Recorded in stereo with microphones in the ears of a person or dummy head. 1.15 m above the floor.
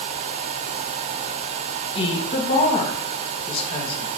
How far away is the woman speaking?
About 1.0 m.